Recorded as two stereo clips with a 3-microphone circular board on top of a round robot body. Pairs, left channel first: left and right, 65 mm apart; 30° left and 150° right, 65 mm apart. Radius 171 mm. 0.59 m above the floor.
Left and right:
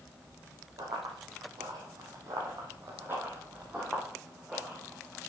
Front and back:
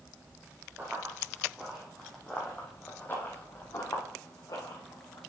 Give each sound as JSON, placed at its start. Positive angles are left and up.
{"t": 0.8, "sound": "running footsteps", "azimuth_deg": -90, "distance_m": 2.5}